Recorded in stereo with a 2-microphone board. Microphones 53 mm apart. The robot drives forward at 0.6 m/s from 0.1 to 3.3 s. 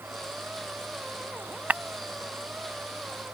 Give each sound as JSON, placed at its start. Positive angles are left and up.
{"t": 1.7, "sound": "breaking glass", "side_deg": -35}